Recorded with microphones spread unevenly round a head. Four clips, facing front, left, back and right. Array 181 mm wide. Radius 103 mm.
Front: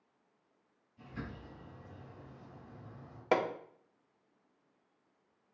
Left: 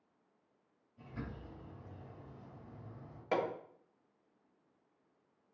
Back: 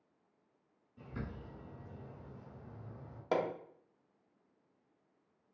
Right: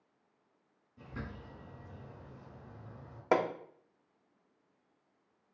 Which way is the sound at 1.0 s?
150° right.